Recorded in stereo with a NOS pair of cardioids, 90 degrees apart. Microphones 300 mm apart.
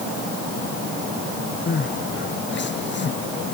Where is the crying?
35° left.